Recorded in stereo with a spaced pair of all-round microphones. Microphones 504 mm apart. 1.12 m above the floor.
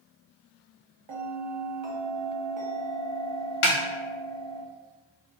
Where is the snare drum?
75° left (ahead or behind), 0.6 m.